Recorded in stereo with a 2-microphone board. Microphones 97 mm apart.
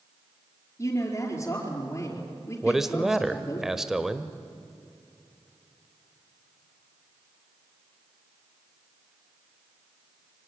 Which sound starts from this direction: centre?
A man speaking, at 2.6 s.